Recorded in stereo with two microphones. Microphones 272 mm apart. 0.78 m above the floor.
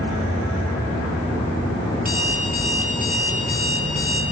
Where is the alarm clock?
35° right (ahead or behind), 9.5 m.